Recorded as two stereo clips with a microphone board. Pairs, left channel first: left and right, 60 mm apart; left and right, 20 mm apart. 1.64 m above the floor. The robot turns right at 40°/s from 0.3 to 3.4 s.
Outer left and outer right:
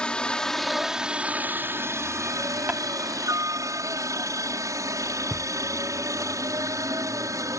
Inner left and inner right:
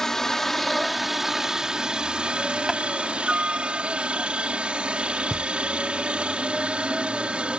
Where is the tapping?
30° right (ahead or behind).